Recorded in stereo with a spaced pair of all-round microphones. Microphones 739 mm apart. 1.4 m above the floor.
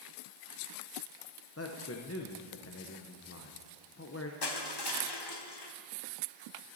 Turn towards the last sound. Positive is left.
turn(degrees=35)  # may be behind; listen again after turning